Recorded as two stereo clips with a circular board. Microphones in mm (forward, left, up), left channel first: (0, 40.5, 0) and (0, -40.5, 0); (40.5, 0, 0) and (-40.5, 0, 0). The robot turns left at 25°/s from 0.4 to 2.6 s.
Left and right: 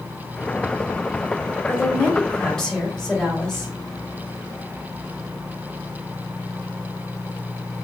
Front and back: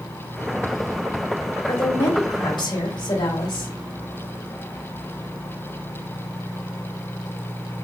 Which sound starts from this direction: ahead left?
A woman speaking, at 1.7 s.